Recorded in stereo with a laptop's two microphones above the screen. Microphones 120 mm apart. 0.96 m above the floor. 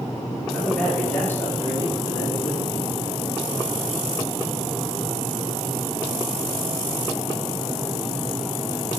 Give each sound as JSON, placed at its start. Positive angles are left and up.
{"t": 0.5, "sound": "a man speaking", "side_deg": 5, "distance_m": 2.5}